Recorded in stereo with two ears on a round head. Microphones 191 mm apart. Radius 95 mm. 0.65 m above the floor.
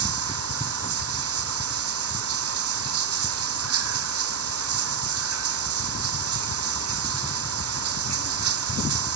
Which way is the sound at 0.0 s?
75° right (ahead or behind).